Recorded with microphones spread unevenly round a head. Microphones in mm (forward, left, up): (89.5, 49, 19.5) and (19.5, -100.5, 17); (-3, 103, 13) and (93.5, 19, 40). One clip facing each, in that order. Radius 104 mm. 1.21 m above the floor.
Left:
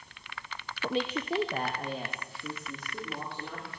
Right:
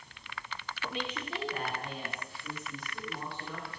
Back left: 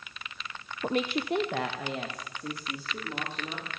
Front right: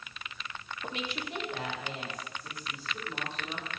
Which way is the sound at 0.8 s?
125° left.